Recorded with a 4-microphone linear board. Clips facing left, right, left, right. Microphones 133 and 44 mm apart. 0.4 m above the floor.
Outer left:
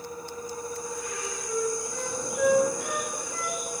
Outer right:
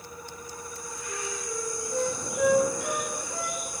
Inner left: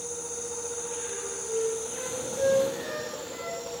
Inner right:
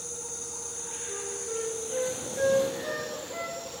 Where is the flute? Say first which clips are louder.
Outer right 1 dB, even; 35° right (ahead or behind), 4 m.